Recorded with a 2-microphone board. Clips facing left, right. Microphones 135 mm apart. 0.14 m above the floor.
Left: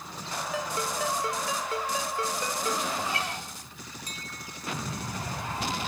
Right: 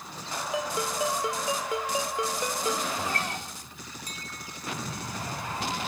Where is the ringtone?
15° right (ahead or behind), 1.3 m.